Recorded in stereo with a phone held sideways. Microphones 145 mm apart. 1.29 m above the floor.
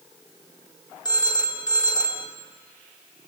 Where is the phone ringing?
30° left (ahead or behind), 1.2 m.